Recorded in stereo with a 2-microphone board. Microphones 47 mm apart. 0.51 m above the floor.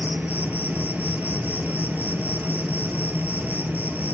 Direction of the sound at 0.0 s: 40° right (ahead or behind).